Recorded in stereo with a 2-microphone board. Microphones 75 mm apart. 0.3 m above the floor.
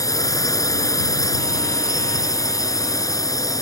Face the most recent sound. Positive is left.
turn(degrees=55)  # may be behind; listen again after turning